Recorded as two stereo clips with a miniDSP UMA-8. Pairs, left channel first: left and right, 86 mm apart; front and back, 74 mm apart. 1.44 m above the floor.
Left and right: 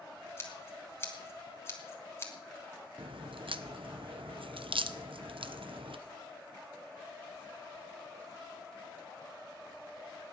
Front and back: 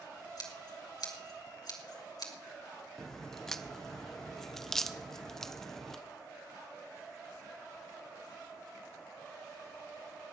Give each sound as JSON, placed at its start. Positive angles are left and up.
{"t": 0.4, "sound": "scissors", "azimuth_deg": 30, "distance_m": 2.5}
{"t": 3.0, "sound": "a crack", "azimuth_deg": -85, "distance_m": 0.9}